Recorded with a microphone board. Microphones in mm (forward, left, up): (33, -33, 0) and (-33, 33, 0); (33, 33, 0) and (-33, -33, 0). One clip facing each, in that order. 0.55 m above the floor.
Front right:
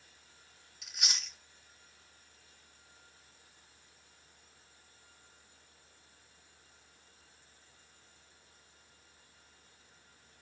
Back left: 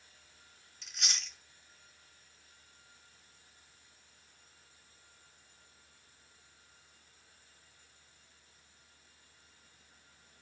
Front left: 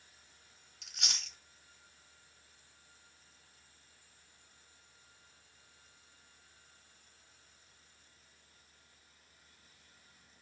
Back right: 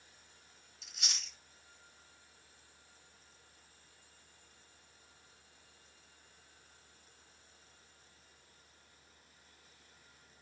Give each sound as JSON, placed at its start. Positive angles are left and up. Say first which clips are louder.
{"t": 0.8, "sound": "chewing", "louder": "even, front left 2 dB", "azimuth_deg": 35, "distance_m": 1.7}